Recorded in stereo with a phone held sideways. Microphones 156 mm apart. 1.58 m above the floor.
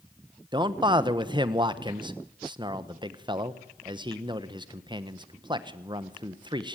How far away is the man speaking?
About 1.4 m.